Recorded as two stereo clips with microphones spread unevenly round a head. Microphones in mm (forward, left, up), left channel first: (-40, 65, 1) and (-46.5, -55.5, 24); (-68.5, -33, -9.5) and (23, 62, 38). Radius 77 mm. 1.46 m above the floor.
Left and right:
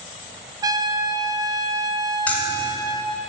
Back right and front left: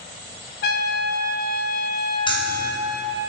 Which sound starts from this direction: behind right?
A trumpet, at 0.6 s.